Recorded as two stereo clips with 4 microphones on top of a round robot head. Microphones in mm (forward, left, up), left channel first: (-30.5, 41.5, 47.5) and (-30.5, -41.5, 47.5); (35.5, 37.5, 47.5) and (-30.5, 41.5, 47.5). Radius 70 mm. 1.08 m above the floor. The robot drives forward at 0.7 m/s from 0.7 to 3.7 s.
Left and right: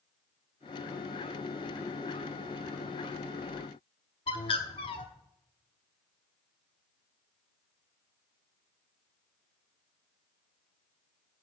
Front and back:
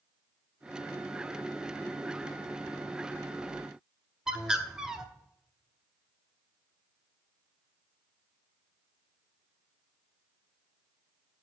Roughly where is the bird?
Left.